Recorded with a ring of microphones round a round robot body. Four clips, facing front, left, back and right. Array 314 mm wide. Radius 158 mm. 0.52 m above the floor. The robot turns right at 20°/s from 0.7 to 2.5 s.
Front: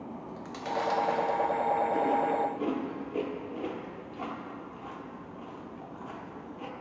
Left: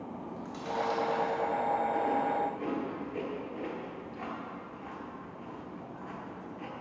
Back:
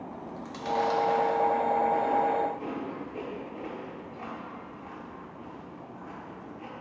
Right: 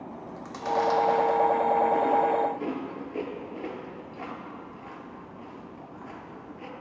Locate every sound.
0.1 s chewing: 70° right, 1.0 m; by 6.7 s 35° right, 1.0 m